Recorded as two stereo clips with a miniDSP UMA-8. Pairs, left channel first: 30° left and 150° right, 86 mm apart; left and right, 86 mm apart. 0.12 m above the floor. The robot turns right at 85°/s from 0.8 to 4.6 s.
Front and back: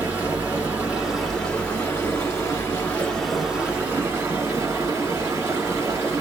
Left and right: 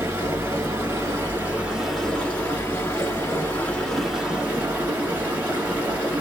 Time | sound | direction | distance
0.0 | running water | 100° right | 1.4 m